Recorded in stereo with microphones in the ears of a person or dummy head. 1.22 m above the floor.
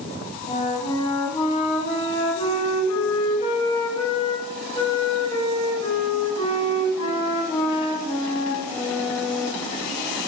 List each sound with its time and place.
0.5 s a flute: 25° left (ahead or behind), 1.1 m